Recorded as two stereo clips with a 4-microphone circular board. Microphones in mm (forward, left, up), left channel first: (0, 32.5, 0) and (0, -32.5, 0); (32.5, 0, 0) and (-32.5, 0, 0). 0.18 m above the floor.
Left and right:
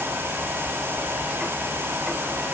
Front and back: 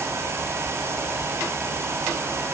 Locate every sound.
Only background noise.